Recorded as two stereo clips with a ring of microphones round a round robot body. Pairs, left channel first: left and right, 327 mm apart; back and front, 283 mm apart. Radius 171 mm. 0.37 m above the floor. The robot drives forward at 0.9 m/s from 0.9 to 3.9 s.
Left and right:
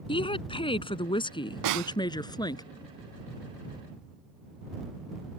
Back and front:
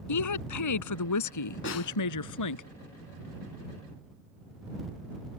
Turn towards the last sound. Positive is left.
turn(degrees=-170)